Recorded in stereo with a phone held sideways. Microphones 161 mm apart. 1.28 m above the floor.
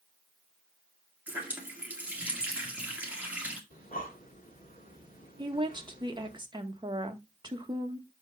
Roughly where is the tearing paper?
I don't hear tearing paper.